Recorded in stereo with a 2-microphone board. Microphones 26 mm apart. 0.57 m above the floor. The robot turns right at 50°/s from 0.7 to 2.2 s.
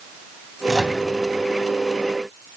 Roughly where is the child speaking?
No child speaking in this recording.